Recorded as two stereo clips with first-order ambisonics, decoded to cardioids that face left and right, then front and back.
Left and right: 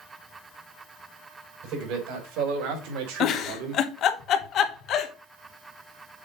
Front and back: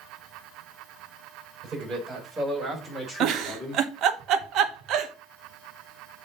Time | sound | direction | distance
1.6 | a man speaking | 110° right | 4 m
3.2 | a giggle | 140° left | 0.9 m